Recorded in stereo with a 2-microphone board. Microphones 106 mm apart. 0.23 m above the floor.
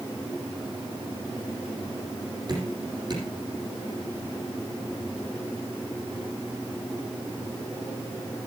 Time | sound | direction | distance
2.5 | dripping | 45° right (ahead or behind) | 9.5 m